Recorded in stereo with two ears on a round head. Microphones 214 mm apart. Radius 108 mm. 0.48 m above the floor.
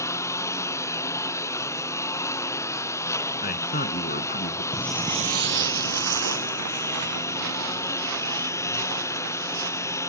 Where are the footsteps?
20° left (ahead or behind); by 10.0 s 85° right.